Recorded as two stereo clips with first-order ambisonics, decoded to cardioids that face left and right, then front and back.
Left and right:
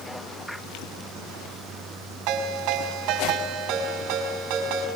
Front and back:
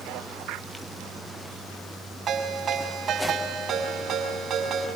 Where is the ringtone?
115° right, 6.5 m.